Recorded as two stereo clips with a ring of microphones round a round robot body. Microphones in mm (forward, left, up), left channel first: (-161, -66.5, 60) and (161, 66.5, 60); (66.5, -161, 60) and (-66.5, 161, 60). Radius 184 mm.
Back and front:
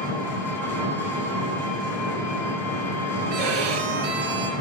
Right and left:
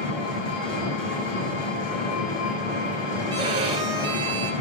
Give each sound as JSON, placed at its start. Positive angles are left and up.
{"t": 0.0, "sound": "an engine running", "azimuth_deg": -75, "distance_m": 6.0}
{"t": 3.3, "sound": "a violin", "azimuth_deg": 35, "distance_m": 3.5}